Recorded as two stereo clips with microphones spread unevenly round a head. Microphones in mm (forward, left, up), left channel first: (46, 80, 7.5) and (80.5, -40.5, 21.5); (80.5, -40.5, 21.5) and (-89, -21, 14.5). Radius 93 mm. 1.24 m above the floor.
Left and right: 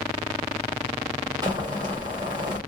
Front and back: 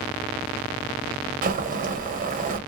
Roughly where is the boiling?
Behind right.